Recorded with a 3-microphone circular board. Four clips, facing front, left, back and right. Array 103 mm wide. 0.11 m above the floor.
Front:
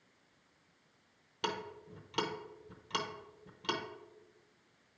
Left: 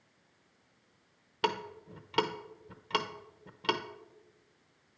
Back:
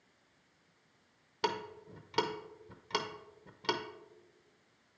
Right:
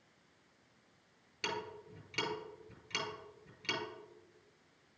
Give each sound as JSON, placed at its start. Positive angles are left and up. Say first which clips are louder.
{"t": 1.4, "sound": "ticking", "louder": "left 8 dB, back 3 dB", "azimuth_deg": 115, "distance_m": 0.7}